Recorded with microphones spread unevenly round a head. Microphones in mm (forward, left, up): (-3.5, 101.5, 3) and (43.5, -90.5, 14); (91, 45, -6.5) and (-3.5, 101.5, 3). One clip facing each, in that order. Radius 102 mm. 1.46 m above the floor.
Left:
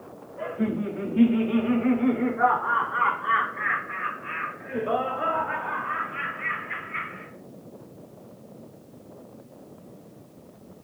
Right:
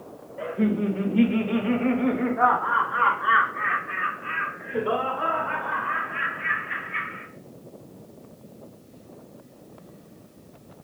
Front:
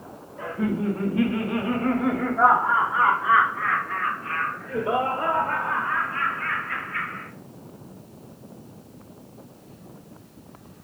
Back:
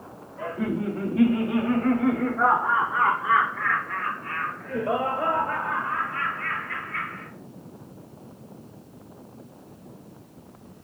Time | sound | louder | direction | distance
0.4 | laughter | right 3 dB, front 1 dB | 140° right | 1.2 m